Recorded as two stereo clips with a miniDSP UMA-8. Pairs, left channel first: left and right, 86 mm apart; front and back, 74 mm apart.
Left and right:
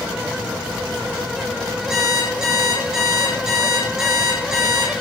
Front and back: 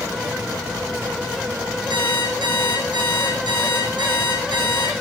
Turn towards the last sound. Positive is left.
turn(degrees=-170)